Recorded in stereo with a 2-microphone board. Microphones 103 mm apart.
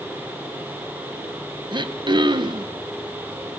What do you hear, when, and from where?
1.7 s throat clearing: 50° right (ahead or behind), 1.1 m